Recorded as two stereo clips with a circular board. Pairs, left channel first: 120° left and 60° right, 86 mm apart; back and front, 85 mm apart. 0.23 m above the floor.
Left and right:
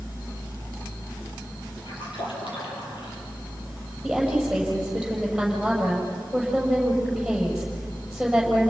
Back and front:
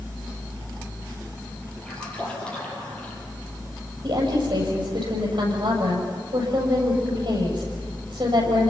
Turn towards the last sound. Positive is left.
turn(degrees=30)